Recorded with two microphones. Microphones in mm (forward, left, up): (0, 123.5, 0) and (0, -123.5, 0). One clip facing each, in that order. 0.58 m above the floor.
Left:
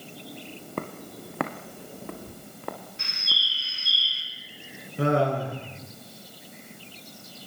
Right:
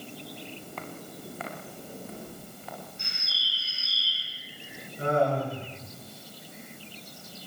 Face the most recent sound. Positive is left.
turn(degrees=80)